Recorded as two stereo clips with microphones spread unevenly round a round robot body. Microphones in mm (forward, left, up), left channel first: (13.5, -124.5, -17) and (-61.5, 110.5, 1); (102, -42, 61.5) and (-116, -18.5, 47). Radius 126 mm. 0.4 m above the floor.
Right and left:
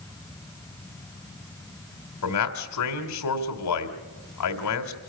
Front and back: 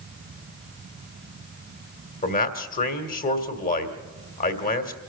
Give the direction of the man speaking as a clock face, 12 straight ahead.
2 o'clock.